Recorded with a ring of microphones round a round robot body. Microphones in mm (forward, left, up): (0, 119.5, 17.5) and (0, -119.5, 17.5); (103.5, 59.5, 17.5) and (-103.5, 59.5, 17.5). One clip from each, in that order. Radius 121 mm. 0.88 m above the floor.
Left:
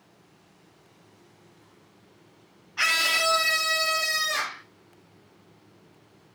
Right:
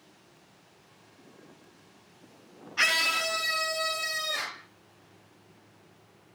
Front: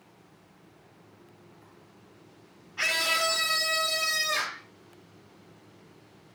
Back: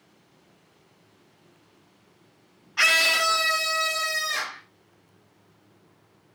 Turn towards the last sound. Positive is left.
turn(degrees=110)